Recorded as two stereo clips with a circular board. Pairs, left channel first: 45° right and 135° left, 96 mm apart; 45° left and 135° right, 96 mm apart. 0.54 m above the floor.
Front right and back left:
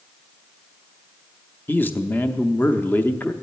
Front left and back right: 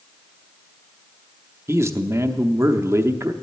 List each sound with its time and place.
1.7 s a man speaking: 100° right, 0.7 m